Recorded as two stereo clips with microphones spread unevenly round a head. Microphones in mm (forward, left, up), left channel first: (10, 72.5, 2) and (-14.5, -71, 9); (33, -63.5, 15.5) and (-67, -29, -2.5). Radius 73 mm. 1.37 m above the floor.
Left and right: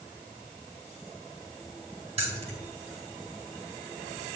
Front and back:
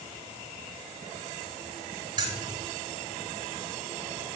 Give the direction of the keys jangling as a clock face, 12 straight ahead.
5 o'clock.